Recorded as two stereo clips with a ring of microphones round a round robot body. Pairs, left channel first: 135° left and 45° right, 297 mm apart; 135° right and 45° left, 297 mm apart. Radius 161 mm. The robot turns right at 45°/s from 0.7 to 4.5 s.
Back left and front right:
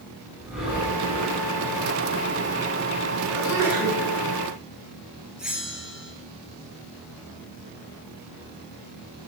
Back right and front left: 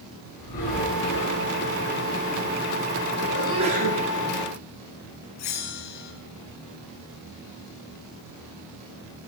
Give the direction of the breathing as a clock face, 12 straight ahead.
4 o'clock.